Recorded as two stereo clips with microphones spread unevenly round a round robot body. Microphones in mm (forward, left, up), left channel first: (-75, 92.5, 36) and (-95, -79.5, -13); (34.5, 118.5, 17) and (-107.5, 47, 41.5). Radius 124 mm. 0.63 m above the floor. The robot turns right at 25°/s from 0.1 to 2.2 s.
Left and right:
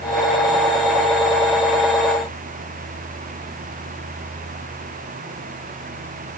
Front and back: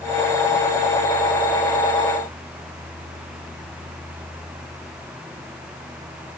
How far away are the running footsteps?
I don't hear running footsteps.